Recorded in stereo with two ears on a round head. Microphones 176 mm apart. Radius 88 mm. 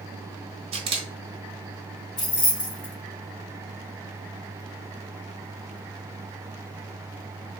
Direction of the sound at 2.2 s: 25° left (ahead or behind).